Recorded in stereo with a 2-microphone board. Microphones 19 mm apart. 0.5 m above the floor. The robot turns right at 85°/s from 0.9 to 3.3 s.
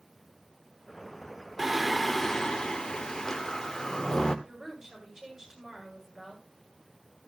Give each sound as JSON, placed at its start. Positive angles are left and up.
{"t": 1.6, "sound": "singing", "azimuth_deg": -25, "distance_m": 1.4}
{"t": 4.5, "sound": "a woman speaking", "side_deg": -30, "distance_m": 8.5}